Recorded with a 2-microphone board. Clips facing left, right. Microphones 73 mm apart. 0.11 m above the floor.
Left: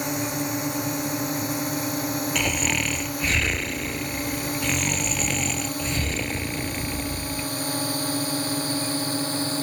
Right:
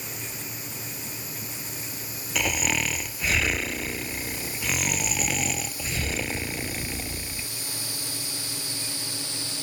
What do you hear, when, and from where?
0.0 s a drone: 70° left (ahead or behind); by 9.6 s 45° left (ahead or behind)
2.4 s snoring: centre (ahead or behind)